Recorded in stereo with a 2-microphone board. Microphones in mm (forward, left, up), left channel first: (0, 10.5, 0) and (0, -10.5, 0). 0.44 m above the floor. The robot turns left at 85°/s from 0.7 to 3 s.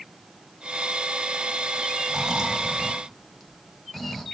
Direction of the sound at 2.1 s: 95° right.